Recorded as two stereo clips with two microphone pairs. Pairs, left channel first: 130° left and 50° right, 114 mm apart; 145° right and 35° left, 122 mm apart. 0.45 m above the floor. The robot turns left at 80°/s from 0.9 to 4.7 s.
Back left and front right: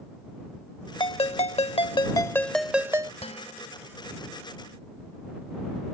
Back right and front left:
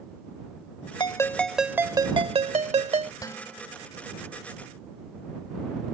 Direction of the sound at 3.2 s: 155° left.